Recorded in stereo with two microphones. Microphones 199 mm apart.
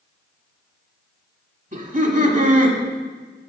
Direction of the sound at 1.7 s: 45° right (ahead or behind).